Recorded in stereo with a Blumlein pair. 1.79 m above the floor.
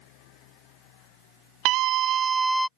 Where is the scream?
40° right; by 2.7 s 5° left.